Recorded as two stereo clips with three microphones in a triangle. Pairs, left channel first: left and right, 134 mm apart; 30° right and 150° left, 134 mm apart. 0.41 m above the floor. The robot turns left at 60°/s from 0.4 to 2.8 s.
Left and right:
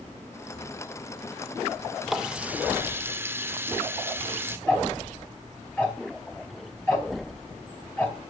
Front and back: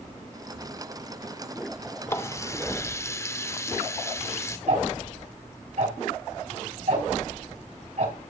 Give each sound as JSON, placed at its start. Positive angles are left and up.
{"t": 2.1, "sound": "a running tap", "azimuth_deg": -5, "distance_m": 0.5}
{"t": 4.7, "sound": "ticking", "azimuth_deg": 165, "distance_m": 3.5}